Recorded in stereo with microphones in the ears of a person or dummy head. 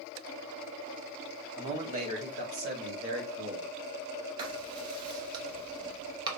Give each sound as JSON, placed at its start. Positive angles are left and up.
{"t": 1.6, "sound": "a man speaking", "side_deg": -25, "distance_m": 0.8}
{"t": 4.4, "sound": "writing", "side_deg": -30, "distance_m": 0.8}